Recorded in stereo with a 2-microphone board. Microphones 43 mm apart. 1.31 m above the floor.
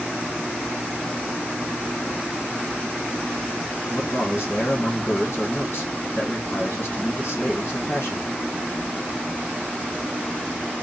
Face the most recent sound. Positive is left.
turn(degrees=50)  # may be behind; listen again after turning